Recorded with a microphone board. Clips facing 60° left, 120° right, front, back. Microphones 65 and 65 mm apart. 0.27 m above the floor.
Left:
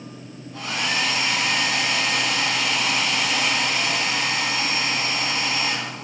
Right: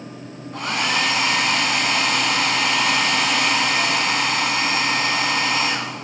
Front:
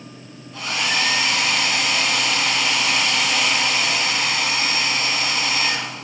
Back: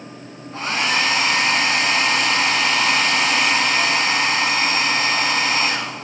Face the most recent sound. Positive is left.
turn(degrees=-135)